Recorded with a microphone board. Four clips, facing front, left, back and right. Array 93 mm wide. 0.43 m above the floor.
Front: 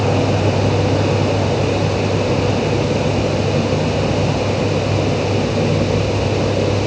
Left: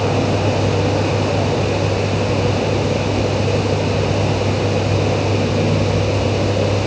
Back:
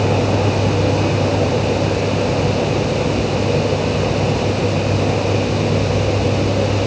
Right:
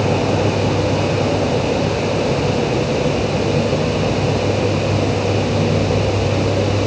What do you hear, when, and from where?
Only background noise.